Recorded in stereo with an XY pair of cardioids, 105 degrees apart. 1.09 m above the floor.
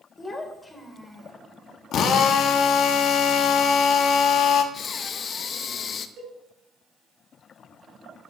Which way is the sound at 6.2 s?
70° right.